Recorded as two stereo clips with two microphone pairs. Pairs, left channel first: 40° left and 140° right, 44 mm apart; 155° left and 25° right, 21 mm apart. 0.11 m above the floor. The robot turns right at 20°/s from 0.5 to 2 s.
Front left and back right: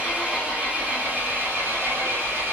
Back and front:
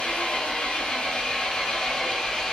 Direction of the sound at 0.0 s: 160° left.